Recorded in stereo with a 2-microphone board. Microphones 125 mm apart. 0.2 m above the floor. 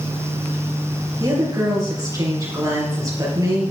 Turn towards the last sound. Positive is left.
turn(degrees=-30)  # may be behind; listen again after turning